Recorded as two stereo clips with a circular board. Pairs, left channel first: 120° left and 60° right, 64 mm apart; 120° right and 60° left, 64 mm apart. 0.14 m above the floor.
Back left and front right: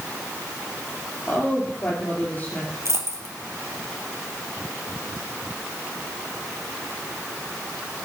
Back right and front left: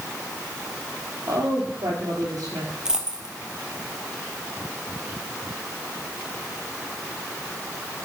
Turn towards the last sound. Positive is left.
turn(degrees=-20)